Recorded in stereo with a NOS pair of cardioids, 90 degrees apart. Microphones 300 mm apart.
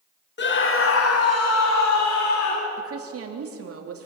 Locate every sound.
0.4 s a scream: 35° left, 3 m; by 2.7 s 70° left, 5.5 m
2.8 s a woman speaking: 50° right, 3 m